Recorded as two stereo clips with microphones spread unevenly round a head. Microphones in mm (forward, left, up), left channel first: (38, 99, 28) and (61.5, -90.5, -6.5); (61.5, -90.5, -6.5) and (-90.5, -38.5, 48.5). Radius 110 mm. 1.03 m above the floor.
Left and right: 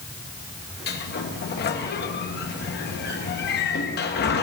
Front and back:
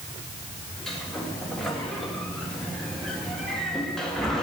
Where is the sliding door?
60° left, 1.7 m.